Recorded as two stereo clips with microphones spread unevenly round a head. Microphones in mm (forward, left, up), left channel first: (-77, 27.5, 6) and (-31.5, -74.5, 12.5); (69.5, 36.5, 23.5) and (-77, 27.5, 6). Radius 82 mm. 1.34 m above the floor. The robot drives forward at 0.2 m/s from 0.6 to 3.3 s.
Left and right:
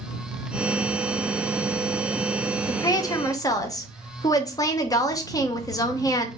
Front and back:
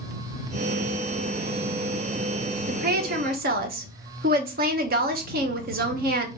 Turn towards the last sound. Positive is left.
turn(degrees=170)